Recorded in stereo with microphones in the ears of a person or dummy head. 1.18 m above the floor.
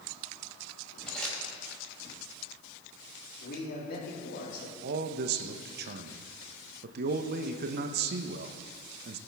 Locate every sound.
1.1 s crumpling: centre (ahead or behind), 4.5 m
3.4 s a man speaking: 55° left (ahead or behind), 3 m
4.8 s a man speaking: 55° right (ahead or behind), 0.8 m